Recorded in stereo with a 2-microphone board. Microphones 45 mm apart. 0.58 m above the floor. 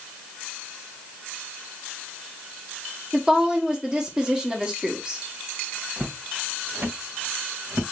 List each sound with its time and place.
3.1 s a woman speaking: 15° right (ahead or behind), 1.2 m
6.0 s footsteps: 30° right (ahead or behind), 1.5 m; by 7.8 s 70° right (ahead or behind), 2 m